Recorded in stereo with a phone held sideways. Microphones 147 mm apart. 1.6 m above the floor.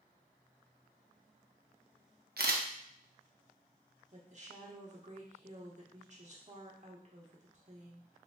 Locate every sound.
2.4 s a camera shutter: 80° right, 0.6 m
4.1 s a woman speaking: 50° right (ahead or behind), 1.0 m